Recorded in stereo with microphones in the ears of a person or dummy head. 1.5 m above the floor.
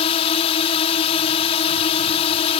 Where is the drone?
35° left (ahead or behind).